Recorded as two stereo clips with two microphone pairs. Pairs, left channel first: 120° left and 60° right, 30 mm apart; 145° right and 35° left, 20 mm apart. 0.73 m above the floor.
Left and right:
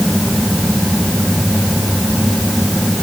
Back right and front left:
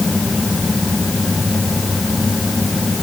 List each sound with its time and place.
Only background noise.